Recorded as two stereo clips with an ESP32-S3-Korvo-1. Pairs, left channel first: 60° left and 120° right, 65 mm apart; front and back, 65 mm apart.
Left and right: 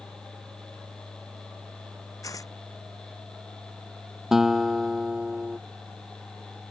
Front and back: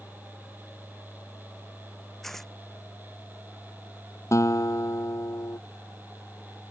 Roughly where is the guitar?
Ahead right.